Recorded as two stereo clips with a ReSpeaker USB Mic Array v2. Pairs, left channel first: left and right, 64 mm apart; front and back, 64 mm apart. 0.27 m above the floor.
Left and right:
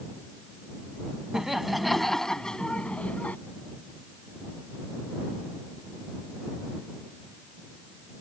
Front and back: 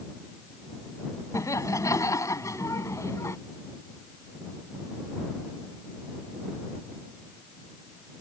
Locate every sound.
1.3 s laughter: 10° right; by 3.4 s 30° left